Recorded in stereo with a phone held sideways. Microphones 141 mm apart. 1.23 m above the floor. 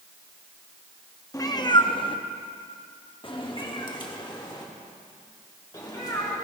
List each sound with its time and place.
1.3 s a cat meowing: 25° left (ahead or behind), 0.8 m; by 6.3 s 30° left (ahead or behind), 2.5 m